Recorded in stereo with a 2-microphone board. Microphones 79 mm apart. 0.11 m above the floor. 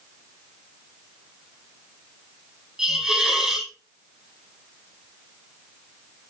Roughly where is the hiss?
Centre.